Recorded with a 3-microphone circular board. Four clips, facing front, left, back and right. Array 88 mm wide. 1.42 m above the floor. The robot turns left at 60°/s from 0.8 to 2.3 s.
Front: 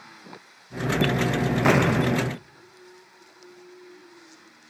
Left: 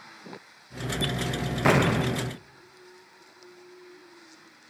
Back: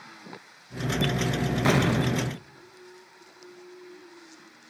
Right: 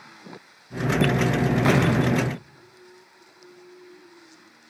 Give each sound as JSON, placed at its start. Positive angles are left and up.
{"t": 1.6, "sound": "an explosion", "azimuth_deg": 30, "distance_m": 0.6}